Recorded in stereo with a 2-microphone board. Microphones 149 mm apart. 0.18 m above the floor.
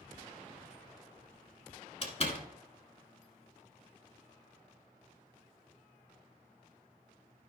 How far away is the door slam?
About 1.4 m.